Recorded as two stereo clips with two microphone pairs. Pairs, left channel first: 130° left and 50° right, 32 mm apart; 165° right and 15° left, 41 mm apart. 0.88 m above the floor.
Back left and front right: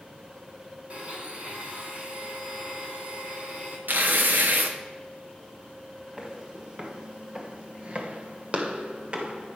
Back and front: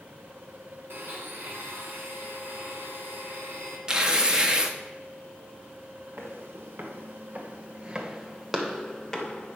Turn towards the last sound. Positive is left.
turn(degrees=-100)